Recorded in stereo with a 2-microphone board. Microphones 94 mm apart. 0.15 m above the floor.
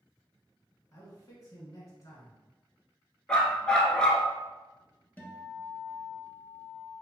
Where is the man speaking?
35° left (ahead or behind), 1.3 m.